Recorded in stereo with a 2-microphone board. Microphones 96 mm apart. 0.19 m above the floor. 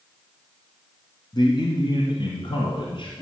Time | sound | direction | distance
1.3 | a man speaking | 50° left (ahead or behind) | 1.7 m